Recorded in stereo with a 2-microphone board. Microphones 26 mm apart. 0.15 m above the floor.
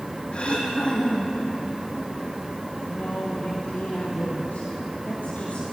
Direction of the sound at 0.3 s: 45° left (ahead or behind).